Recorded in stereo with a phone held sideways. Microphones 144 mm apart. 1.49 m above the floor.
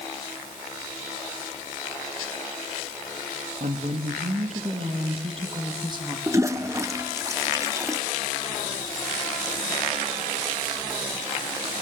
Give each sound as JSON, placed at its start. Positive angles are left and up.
{"t": 3.6, "sound": "a woman speaking", "side_deg": -70, "distance_m": 2.5}
{"t": 6.3, "sound": "a toilet flushing", "side_deg": -20, "distance_m": 0.9}